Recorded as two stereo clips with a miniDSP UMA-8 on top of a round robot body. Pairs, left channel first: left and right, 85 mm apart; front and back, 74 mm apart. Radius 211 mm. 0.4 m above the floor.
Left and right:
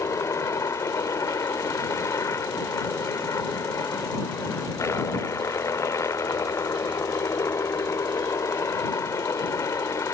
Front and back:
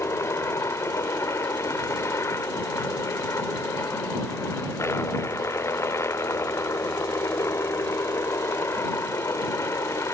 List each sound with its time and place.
0.0 s a helicopter: 45° left